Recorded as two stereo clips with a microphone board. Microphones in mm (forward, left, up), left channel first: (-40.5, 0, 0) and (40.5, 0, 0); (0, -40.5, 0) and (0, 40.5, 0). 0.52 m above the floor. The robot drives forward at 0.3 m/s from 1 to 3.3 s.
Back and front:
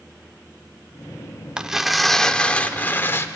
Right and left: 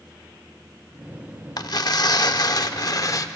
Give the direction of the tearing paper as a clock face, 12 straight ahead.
2 o'clock.